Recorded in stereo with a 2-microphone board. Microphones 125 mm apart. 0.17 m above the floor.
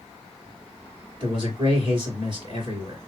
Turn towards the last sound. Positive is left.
turn(degrees=-40)  # may be behind; listen again after turning